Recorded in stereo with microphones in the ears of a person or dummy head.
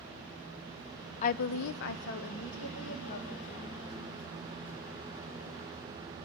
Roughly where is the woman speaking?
Left.